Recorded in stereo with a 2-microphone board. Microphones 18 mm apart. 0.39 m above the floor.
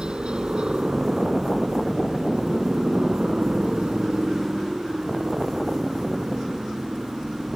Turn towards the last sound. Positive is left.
turn(degrees=-65)  # may be behind; listen again after turning